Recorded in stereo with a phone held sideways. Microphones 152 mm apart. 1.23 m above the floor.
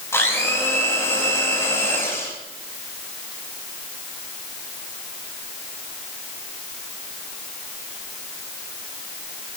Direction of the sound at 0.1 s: 15° left (ahead or behind).